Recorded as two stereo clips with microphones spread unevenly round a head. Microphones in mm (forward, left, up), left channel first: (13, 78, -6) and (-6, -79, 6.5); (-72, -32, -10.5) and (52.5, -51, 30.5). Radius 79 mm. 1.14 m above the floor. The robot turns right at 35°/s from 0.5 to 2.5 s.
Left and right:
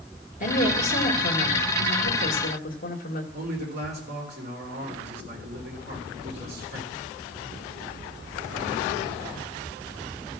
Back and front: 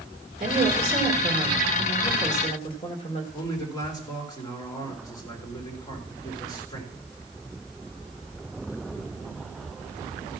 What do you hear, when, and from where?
0.4 s a woman speaking: 45° left, 1.9 m; by 3.2 s 115° left, 1.9 m
3.3 s a man speaking: 130° right, 3.5 m